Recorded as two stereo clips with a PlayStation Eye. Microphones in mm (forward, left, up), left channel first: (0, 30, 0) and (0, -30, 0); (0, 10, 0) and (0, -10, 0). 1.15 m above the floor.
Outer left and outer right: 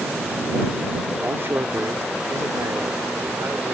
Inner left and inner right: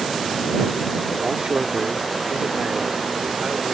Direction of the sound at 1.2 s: 40° right (ahead or behind).